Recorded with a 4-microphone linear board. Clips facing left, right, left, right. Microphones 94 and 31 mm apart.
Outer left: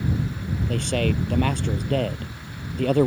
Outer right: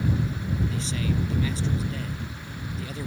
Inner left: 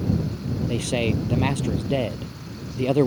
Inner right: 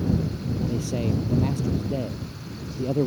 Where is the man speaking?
60° left (ahead or behind).